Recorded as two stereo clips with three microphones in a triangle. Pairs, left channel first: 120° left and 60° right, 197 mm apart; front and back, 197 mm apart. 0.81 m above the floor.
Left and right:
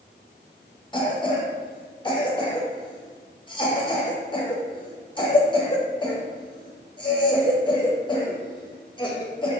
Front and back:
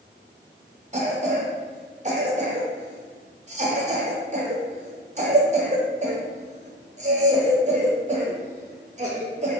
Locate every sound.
0.9 s a cough: 170° left, 0.7 m